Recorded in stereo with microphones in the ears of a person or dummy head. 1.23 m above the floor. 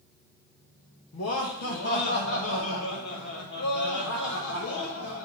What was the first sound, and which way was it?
Laughter, 90° left.